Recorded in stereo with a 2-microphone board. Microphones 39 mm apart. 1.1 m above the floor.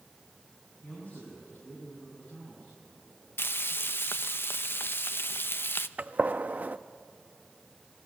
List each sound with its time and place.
0.8 s a man speaking: 45° left (ahead or behind), 8.5 m
3.4 s frying: 70° left (ahead or behind), 0.6 m
6.0 s a gunshot: 40° right (ahead or behind), 0.6 m